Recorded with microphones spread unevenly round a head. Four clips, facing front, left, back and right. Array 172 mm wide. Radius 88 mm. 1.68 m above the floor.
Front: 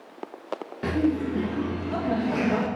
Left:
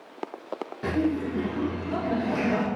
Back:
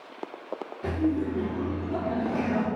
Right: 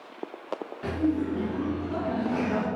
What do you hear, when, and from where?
0.8 s laughter: 10° left, 2.5 m